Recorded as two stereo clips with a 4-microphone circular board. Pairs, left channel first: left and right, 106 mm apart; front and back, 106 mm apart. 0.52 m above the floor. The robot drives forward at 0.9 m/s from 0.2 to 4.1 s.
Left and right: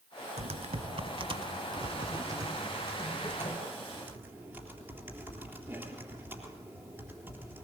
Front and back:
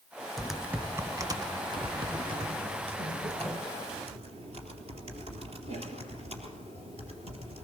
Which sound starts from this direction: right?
Typing on a keyboard, at 0.4 s.